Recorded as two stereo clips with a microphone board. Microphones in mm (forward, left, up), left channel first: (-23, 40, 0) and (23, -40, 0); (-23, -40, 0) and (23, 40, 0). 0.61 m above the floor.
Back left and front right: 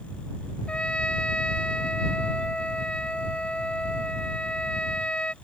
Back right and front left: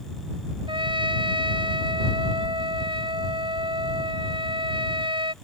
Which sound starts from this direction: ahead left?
A trumpet, at 0.7 s.